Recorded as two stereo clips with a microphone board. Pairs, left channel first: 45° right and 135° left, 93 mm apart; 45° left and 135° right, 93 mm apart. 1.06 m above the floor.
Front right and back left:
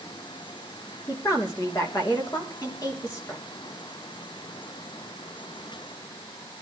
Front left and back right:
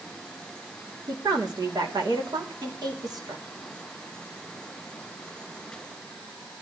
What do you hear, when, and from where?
1.1 s a woman speaking: 90° right, 3 m